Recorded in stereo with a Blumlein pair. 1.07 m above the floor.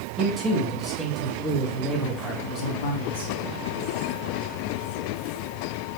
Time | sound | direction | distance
0.2 | a man speaking | 25° right | 1.5 m